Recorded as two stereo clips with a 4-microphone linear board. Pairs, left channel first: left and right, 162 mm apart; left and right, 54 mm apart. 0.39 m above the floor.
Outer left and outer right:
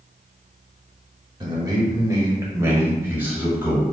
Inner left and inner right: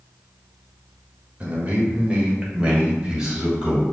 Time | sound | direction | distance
1.4 | a man speaking | 30° right (ahead or behind) | 1.1 m